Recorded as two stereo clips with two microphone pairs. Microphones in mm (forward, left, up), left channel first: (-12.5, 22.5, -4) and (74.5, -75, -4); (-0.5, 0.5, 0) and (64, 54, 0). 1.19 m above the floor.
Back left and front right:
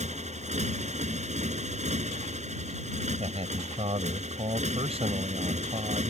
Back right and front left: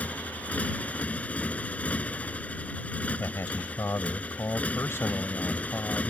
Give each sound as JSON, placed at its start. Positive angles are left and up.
{"t": 0.0, "sound": "a motorcycle", "azimuth_deg": -70}
{"t": 3.2, "sound": "a man speaking", "azimuth_deg": -85}